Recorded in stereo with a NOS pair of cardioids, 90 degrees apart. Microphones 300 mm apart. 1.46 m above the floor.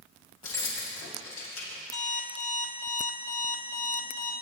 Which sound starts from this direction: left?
Keys jangling, at 0.4 s.